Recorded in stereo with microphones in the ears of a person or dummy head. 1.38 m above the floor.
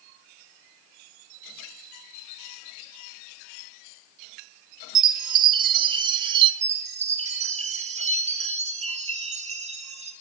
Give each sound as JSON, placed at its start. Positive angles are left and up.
{"t": 5.0, "sound": "a chime", "side_deg": -25, "distance_m": 1.6}
{"t": 6.6, "sound": "a chime", "side_deg": -35, "distance_m": 1.2}